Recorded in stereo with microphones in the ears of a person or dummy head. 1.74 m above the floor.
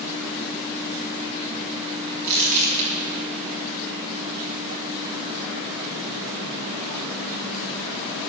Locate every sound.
2.2 s crumpling: 60° right (ahead or behind), 4.5 m